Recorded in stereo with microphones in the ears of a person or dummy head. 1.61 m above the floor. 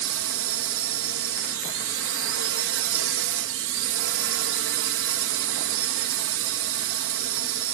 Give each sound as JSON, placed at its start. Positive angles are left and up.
{"t": 0.0, "sound": "a drone", "side_deg": -70}